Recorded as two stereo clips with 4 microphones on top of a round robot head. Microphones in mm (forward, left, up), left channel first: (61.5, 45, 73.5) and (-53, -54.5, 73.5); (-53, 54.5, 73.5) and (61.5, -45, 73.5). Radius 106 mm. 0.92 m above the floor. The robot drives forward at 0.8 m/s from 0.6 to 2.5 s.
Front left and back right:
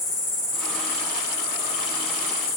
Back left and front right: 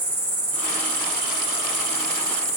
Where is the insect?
15° left, 3.5 m; by 2.6 s 30° left, 2 m.